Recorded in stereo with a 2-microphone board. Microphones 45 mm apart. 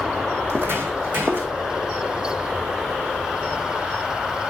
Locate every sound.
0.4 s footsteps: 60° right (ahead or behind), 1.5 m; by 1.5 s 45° right (ahead or behind), 2 m